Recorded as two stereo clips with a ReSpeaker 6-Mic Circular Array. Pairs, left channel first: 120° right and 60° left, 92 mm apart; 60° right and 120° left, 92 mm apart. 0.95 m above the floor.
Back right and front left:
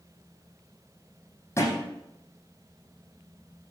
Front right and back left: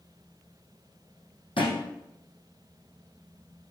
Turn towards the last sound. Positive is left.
turn(degrees=-65)